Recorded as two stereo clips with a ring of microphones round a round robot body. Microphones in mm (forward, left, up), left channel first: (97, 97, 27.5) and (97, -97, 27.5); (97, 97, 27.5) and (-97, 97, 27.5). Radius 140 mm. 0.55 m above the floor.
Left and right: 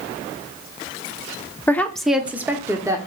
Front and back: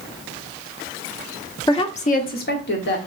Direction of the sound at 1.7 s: 30° left.